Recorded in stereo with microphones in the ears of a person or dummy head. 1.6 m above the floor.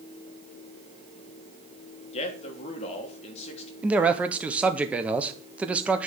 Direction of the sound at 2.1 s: 35° left (ahead or behind).